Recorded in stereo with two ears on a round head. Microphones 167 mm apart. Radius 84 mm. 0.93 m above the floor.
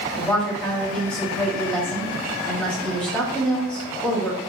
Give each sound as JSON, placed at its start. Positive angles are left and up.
{"t": 0.2, "sound": "a woman speaking", "side_deg": 5, "distance_m": 1.3}